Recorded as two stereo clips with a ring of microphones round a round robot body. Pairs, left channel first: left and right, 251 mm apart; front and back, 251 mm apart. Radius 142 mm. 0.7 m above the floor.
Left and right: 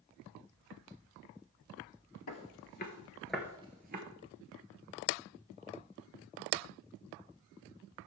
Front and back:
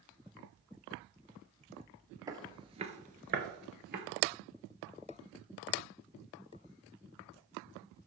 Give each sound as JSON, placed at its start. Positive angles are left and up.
{"t": 2.3, "sound": "footsteps", "azimuth_deg": 105, "distance_m": 1.0}